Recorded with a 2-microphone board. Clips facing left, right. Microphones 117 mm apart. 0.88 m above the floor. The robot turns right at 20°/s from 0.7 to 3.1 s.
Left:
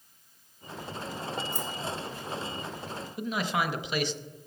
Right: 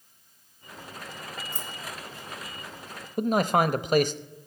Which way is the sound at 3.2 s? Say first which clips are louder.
Right 8 dB; 50° right (ahead or behind).